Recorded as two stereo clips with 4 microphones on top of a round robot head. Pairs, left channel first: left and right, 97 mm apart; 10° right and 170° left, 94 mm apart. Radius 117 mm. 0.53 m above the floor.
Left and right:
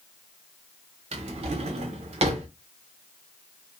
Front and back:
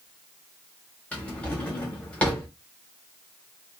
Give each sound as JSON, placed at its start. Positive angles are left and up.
{"t": 1.1, "sound": "a drawer", "azimuth_deg": -90, "distance_m": 0.6}